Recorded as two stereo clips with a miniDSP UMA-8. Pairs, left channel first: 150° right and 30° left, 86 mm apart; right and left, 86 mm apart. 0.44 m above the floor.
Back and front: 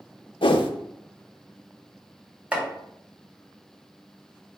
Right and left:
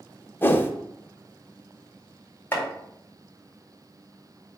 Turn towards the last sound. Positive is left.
turn(degrees=-35)